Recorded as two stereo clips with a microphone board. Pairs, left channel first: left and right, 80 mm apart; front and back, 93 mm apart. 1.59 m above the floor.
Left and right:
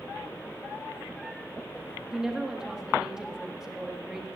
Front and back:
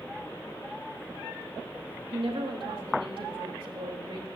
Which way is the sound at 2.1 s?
170° right.